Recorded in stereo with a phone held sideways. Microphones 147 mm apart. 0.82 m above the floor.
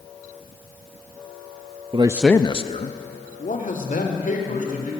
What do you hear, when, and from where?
1.9 s a man speaking: 40° right (ahead or behind), 0.6 m; by 4.9 s 75° left (ahead or behind), 3.5 m